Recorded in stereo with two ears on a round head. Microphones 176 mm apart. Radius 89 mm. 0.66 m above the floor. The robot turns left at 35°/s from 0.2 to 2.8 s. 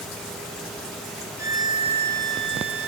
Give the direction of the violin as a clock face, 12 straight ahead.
1 o'clock.